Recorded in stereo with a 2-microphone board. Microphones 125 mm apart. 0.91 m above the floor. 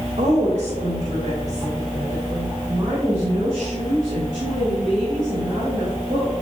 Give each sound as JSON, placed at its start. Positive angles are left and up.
{"t": 0.2, "sound": "a woman speaking", "side_deg": -70, "distance_m": 3.0}